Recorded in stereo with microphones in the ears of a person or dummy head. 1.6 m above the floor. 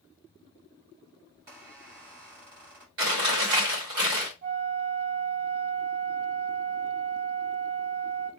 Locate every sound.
1.3 s a squeak: 50° right (ahead or behind), 2.5 m
3.0 s chewing: 70° right (ahead or behind), 2.5 m
4.4 s a flute: 40° right (ahead or behind), 0.9 m